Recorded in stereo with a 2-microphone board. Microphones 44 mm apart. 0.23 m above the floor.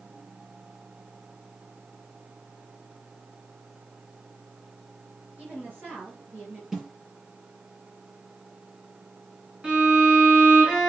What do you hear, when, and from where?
5.4 s a woman speaking: 40° right (ahead or behind), 4 m; by 6.6 s 50° right (ahead or behind), 3.5 m
6.7 s a snare drum: 10° right (ahead or behind), 5 m
9.6 s a violin: 20° right (ahead or behind), 3 m